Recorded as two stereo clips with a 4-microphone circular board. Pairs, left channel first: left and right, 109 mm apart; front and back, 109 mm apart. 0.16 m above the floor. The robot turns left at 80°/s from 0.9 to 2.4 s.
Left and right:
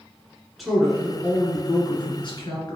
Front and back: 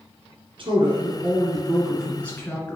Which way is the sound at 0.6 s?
175° right.